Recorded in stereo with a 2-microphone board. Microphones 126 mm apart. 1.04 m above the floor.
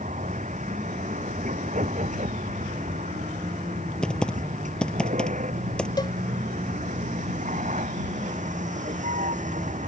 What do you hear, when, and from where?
0.0 s a vehicle: 70° right (ahead or behind)
4.0 s typing on a keyboard: 10° left (ahead or behind)
6.0 s a cowbell: 30° left (ahead or behind)